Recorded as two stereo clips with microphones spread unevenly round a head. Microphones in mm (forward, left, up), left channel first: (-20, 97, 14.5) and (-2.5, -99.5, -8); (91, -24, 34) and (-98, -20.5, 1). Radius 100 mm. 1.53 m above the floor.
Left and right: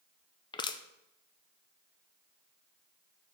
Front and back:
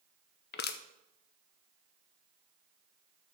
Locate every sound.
0.5 s crushing: 30° left, 0.6 m